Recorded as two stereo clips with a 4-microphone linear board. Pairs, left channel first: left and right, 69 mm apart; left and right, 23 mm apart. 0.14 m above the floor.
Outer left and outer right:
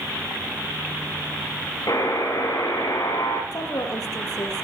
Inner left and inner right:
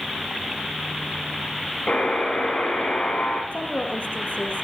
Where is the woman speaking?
70° left (ahead or behind), 4 m.